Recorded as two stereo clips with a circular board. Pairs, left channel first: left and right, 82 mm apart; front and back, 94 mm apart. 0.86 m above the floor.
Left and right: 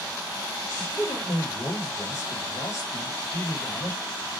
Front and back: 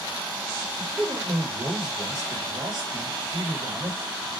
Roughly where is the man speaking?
Behind left.